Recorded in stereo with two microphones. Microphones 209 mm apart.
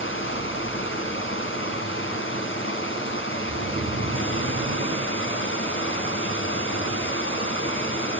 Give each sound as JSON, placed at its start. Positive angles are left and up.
{"t": 0.0, "sound": "running water", "side_deg": 70, "distance_m": 2.5}
{"t": 3.4, "sound": "snoring", "side_deg": -50, "distance_m": 0.7}